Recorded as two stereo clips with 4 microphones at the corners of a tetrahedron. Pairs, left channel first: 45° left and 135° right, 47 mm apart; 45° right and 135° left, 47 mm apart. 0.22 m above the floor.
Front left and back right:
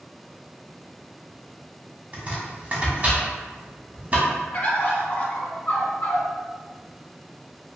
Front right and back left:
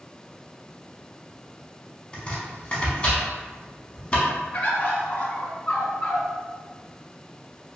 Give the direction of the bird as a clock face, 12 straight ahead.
12 o'clock.